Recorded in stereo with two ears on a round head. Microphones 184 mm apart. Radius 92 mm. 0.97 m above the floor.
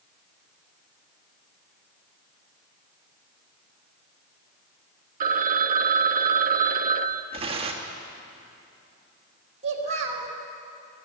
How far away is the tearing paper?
About 1.5 m.